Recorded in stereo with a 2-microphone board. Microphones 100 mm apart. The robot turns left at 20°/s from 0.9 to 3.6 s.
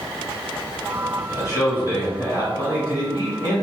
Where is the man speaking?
115° left, 1.8 m; by 3.6 s 65° left, 1.8 m.